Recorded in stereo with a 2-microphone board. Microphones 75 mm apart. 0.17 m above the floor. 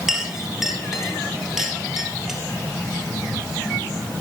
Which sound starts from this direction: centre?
A clink, at 0.1 s.